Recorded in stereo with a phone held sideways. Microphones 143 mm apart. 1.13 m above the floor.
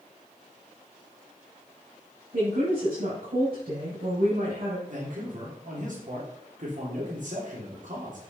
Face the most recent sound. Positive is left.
turn(degrees=-60)  # may be behind; listen again after turning